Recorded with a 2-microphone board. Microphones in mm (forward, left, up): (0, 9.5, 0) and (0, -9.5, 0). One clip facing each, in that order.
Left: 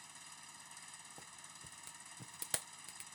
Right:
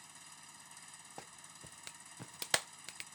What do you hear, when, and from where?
0.0 s an engine running: 5° left (ahead or behind)
1.2 s a clap: 40° right (ahead or behind)